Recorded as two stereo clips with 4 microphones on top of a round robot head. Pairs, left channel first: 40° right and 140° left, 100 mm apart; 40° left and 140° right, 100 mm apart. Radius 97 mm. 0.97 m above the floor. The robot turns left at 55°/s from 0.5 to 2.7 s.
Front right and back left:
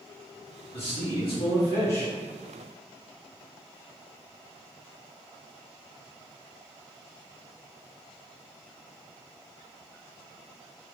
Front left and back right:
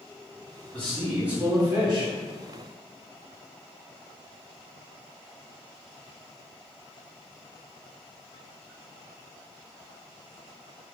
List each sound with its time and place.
0.7 s a man speaking: 35° right, 1.7 m; by 2.1 s 115° right, 1.7 m